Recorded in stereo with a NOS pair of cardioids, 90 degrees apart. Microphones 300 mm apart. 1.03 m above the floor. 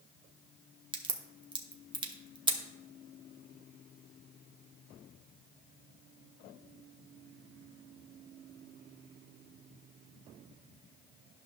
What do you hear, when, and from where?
0.9 s a crack: 15° right, 1.2 m